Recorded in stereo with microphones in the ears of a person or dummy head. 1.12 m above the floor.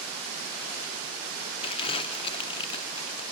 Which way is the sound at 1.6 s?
25° left (ahead or behind).